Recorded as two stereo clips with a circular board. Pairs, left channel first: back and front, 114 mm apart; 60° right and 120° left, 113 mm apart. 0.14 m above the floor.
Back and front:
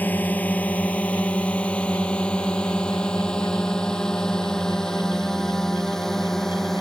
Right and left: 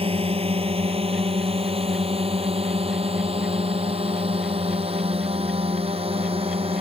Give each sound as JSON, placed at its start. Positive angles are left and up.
{"t": 0.0, "sound": "a drone", "azimuth_deg": 105}